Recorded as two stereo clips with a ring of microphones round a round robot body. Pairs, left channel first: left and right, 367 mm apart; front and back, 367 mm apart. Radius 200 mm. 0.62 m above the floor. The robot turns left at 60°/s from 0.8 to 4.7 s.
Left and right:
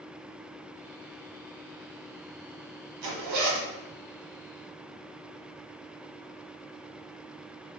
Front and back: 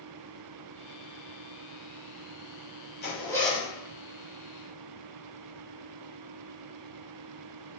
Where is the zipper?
60° right, 1.0 m; by 3.7 s 105° right, 1.0 m.